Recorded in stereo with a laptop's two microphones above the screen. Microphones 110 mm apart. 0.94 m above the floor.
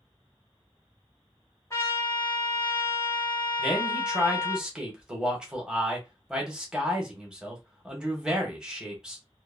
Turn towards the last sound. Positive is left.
turn(degrees=-5)  # may be behind; listen again after turning